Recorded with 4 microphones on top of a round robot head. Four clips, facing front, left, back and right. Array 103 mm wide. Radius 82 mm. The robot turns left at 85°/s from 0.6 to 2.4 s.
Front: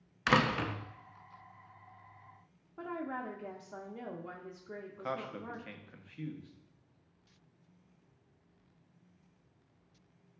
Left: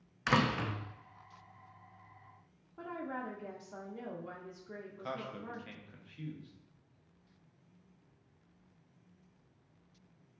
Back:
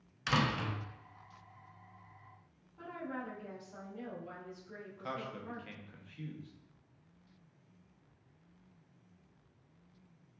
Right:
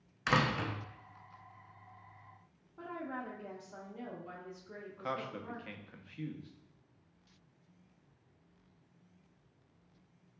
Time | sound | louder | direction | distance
0.3 | a door slam | left 1 dB, front 4 dB | 5° left | 0.6 m
2.8 | a woman speaking | left 1 dB, front 3 dB | 15° left | 0.7 m
4.9 | a man speaking | right 3 dB, front 2 dB | 50° right | 0.7 m